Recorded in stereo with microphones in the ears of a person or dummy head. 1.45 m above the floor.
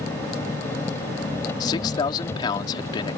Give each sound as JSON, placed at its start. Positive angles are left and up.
{"t": 0.0, "sound": "an engine running", "side_deg": 15}
{"t": 1.6, "sound": "a man speaking", "side_deg": 30}